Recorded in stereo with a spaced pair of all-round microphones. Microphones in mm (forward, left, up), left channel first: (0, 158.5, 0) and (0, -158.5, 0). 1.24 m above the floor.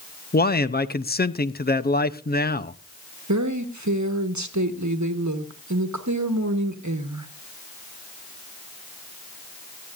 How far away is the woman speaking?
About 1.3 m.